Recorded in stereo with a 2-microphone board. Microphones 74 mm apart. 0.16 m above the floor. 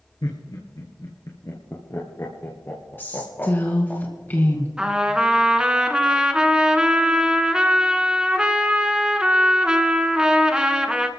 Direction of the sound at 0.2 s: 65° left (ahead or behind).